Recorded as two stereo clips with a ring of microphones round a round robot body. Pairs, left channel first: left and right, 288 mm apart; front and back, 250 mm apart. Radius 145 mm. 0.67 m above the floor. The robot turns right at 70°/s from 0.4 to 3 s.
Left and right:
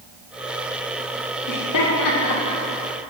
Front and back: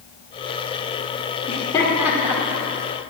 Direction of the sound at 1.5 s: 55° left.